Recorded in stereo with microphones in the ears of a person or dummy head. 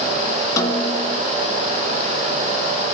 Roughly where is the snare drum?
Centre.